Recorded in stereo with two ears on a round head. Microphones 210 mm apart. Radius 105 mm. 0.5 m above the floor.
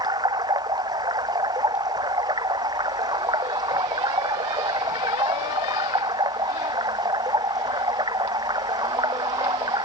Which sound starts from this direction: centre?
Running water, at 0.0 s.